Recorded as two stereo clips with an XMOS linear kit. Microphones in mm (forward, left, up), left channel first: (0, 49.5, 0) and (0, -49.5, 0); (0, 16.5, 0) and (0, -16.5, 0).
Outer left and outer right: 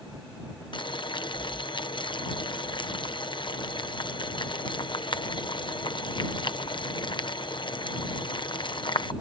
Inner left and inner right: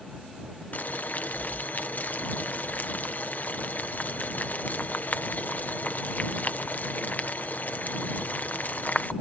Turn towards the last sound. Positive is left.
turn(degrees=55)  # may be behind; listen again after turning